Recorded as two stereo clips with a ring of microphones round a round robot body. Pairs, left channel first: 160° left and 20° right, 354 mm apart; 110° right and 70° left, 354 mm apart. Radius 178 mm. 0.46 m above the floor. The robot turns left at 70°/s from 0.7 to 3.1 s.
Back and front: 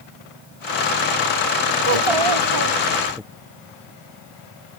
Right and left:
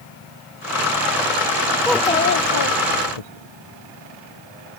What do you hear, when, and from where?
1.8 s a child speaking: 20° right; by 3.2 s 105° right